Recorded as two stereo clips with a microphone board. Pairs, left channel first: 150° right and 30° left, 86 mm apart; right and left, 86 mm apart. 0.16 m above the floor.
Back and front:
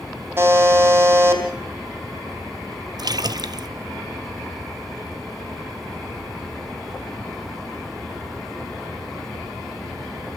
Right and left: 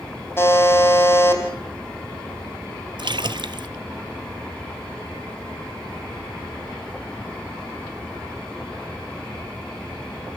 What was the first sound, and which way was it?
A buzzer, 30° right.